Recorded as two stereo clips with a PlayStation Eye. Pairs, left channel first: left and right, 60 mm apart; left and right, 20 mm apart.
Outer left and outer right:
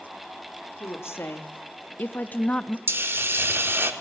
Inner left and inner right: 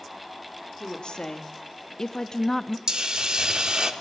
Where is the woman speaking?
50° left (ahead or behind), 1.8 m; by 2.8 s 20° left (ahead or behind), 0.7 m.